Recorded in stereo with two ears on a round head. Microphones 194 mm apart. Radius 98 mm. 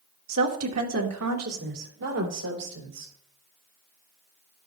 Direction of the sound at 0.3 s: 75° right (ahead or behind).